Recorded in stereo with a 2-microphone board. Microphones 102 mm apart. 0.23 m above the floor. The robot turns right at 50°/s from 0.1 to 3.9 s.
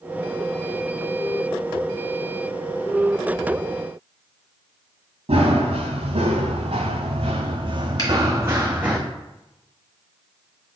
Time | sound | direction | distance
5.3 | running footsteps | 75° right (ahead or behind) | 1.6 m
8.0 | a finger snap | 40° left (ahead or behind) | 1.4 m